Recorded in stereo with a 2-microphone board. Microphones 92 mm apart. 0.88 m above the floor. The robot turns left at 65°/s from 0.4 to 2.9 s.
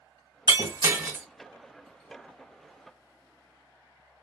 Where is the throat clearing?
No throat clearing in this recording.